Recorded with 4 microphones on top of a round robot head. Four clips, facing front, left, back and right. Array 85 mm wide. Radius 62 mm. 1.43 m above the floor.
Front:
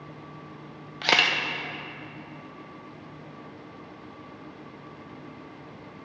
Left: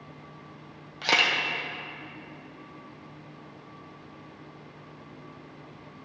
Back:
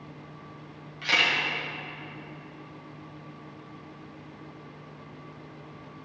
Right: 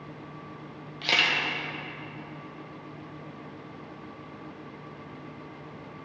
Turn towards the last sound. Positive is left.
turn(degrees=20)